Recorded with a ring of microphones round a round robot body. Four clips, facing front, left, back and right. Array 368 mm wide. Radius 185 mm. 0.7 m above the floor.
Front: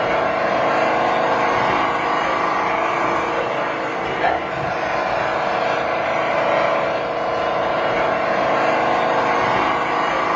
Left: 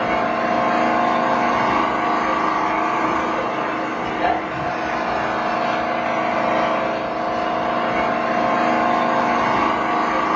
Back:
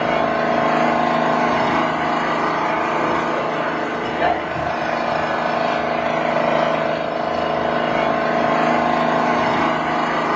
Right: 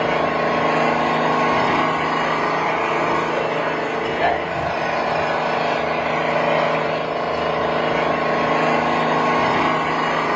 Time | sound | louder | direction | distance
0.0 | an engine running | right 1 dB, even | 130° right | 1.0 m